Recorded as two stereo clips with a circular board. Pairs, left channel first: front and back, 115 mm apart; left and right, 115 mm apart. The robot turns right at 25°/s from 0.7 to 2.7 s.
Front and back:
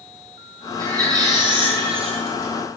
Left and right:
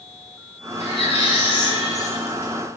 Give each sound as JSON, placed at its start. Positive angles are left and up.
{"t": 0.8, "sound": "a baby crying", "azimuth_deg": 115, "distance_m": 3.5}